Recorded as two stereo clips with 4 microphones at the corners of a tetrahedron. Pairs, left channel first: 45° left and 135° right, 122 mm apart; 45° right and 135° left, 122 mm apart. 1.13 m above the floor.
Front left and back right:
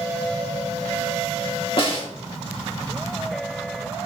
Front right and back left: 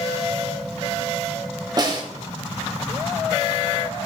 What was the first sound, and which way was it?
A snare drum, 80° left.